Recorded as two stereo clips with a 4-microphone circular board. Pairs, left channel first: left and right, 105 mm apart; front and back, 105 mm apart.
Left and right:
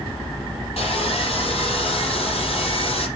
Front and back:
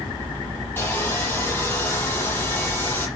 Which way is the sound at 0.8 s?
70° left.